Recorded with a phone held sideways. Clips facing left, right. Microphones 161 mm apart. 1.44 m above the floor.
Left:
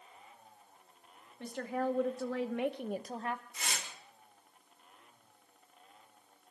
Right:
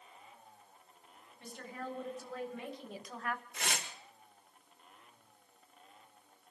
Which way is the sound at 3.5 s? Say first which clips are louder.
Right 3 dB; 70° right (ahead or behind).